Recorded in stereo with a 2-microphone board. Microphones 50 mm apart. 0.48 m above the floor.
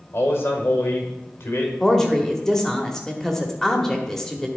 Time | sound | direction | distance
0.1 | a man speaking | 55° left (ahead or behind) | 1.8 m
1.8 | a woman speaking | 10° left (ahead or behind) | 1.2 m